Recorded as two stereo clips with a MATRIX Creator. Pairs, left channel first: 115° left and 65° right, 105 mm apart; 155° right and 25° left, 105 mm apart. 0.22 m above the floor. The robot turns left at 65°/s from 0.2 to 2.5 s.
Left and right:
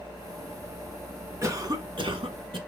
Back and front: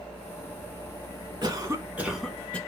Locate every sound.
1.4 s a cough: 15° right, 1.9 m; by 2.6 s 85° right, 1.9 m